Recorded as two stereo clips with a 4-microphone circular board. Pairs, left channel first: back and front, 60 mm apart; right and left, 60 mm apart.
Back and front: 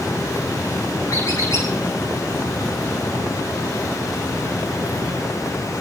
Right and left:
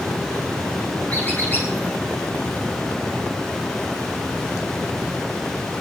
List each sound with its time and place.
1.1 s a squeak: 150° right, 7.5 m